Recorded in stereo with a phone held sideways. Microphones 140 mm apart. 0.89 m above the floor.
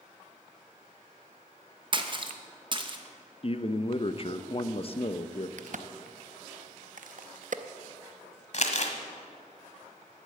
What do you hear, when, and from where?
1.9 s a splash: 35° right (ahead or behind), 0.9 m
3.4 s a man speaking: 40° left (ahead or behind), 0.5 m
5.6 s a crack: 65° right (ahead or behind), 0.5 m
8.5 s crumpling: 55° left (ahead or behind), 1.2 m